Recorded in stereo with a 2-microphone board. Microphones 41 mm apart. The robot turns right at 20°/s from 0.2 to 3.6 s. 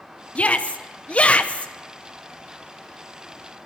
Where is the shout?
35° left (ahead or behind), 0.5 m; by 1.7 s 30° left (ahead or behind), 0.5 m.